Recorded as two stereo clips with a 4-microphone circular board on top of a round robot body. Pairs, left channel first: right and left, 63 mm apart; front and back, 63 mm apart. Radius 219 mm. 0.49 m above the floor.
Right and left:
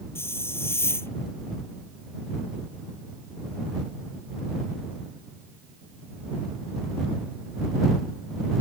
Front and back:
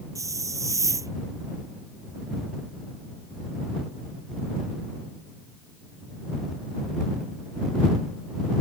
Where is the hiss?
145° right.